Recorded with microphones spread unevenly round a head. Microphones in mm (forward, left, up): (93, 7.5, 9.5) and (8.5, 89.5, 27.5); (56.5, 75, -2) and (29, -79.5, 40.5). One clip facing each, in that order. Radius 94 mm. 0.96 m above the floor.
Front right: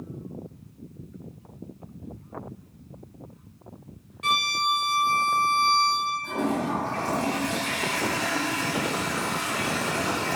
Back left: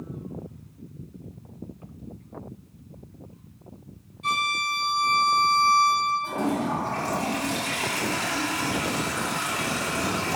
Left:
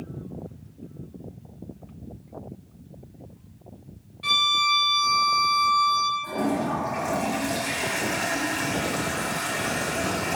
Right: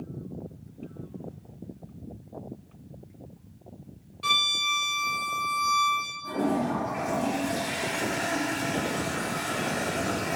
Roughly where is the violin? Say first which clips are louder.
Front right 2 dB, left 5 dB; ahead right.